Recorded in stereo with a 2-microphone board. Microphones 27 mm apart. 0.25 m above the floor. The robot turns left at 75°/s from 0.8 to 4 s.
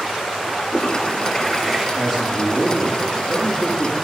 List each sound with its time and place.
0.6 s a toilet flushing: 60° left, 3.5 m; by 1.9 s 20° right, 3.5 m
2.0 s a man speaking: 175° left, 8.5 m; by 4.0 s 30° left, 8.5 m